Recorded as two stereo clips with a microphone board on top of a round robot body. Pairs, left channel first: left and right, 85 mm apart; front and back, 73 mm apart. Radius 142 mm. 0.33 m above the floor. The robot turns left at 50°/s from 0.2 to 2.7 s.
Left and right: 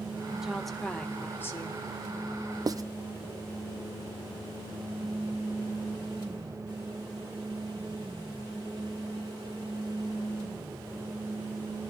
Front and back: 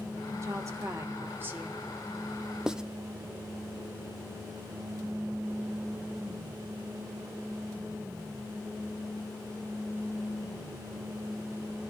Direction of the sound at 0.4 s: 170° right.